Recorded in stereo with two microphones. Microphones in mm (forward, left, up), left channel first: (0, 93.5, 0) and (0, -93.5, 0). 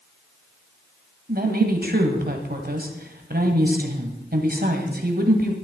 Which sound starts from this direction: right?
A woman speaking, at 1.3 s.